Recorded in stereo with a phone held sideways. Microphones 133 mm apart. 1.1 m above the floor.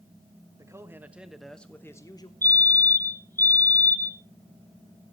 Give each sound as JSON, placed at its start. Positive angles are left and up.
{"t": 0.6, "sound": "a man speaking", "side_deg": -25, "distance_m": 1.4}
{"t": 2.4, "sound": "a fire alarm", "side_deg": 15, "distance_m": 1.1}